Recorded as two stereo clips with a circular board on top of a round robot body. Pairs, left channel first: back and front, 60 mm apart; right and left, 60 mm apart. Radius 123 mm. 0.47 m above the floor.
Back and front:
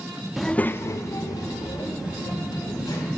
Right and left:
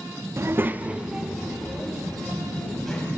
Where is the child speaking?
85° left, 0.6 m; by 3.1 s 175° right, 2.5 m.